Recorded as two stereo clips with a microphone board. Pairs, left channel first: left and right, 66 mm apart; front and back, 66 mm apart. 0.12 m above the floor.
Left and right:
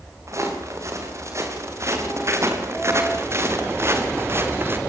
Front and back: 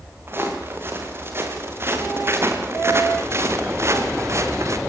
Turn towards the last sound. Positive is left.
turn(degrees=-145)